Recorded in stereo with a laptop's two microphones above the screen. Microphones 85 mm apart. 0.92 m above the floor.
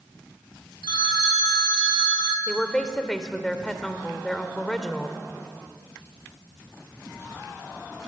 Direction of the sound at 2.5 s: 10° left (ahead or behind).